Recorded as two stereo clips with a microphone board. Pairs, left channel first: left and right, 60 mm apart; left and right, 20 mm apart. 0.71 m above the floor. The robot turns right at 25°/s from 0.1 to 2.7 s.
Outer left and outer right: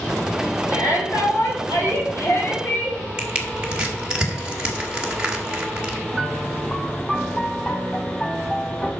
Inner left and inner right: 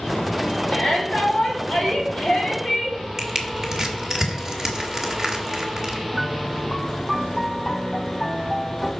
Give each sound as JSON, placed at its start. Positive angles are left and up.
{"t": 0.7, "sound": "a shout", "azimuth_deg": 90, "distance_m": 4.0}
{"t": 3.2, "sound": "crushing", "side_deg": -15, "distance_m": 1.7}
{"t": 6.1, "sound": "a piano", "side_deg": 15, "distance_m": 1.1}